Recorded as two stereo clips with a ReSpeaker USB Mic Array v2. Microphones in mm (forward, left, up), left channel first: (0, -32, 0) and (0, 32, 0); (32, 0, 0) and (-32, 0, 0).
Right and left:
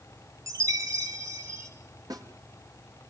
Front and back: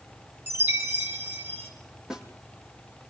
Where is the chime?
125° left, 5 m.